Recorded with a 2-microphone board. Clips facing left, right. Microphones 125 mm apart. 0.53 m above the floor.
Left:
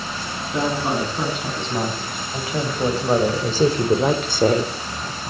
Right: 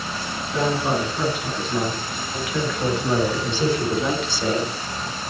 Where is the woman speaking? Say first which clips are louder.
Even; 20° left (ahead or behind), 6 m; by 4.7 s 55° left (ahead or behind), 1.7 m.